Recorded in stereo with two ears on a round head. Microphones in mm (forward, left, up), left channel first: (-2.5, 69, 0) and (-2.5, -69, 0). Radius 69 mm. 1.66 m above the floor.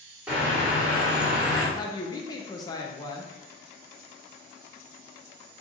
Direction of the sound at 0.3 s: 5° right (ahead or behind).